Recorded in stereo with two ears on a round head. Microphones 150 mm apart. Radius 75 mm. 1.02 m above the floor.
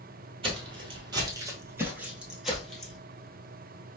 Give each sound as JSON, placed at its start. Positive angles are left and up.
{"t": 0.4, "sound": "footsteps", "side_deg": -35, "distance_m": 1.2}